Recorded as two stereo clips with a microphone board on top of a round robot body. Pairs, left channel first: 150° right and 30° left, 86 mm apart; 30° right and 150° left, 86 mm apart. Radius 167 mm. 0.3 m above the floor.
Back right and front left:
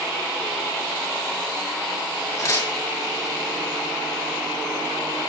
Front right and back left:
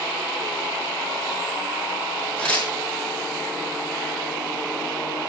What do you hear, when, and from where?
2.4 s tearing paper: 105° right, 6 m